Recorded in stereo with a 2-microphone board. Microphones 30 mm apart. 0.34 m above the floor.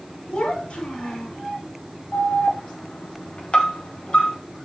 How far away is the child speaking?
About 2 m.